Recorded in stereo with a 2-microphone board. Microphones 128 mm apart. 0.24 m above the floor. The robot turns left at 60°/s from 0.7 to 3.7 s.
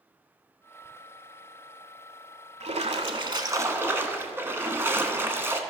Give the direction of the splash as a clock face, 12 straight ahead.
3 o'clock.